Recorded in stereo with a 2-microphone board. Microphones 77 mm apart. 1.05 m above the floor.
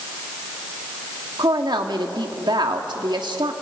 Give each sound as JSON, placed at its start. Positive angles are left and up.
{"t": 1.4, "sound": "a woman speaking", "side_deg": -80, "distance_m": 2.0}